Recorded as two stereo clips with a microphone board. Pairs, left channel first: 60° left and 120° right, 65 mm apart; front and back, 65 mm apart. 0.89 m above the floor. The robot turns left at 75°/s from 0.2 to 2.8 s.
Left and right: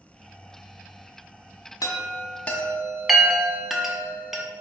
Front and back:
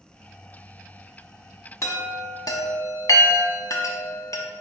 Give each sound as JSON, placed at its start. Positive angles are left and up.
{"t": 1.8, "sound": "a chime", "azimuth_deg": 40, "distance_m": 0.7}